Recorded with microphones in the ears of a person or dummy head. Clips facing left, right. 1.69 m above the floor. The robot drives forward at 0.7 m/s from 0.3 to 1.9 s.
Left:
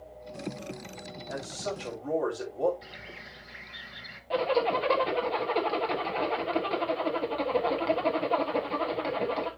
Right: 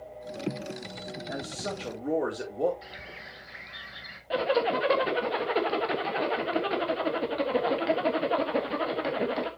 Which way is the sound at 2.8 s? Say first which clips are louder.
Right 1 dB; centre (ahead or behind).